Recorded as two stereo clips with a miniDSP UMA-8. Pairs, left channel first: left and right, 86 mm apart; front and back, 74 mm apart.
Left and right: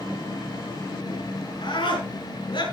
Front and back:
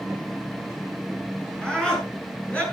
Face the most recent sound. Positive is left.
turn(degrees=70)